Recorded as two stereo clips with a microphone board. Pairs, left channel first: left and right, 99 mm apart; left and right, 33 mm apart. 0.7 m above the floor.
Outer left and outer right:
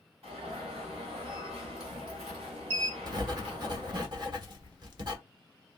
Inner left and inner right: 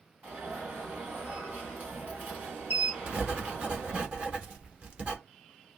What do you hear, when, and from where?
0.2 s an alarm: 70° right (ahead or behind), 3 m
3.1 s writing: 45° right (ahead or behind), 1.1 m